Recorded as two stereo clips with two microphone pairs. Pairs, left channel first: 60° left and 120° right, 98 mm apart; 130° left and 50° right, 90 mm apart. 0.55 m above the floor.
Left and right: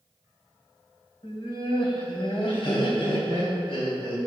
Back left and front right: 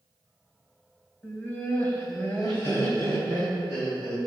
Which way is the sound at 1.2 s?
65° left.